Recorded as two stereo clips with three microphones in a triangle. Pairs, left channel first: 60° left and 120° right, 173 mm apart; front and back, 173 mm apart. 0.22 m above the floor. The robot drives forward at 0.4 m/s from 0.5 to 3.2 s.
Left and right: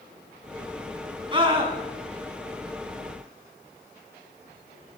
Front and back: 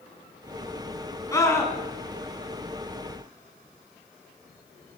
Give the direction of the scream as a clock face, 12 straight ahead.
2 o'clock.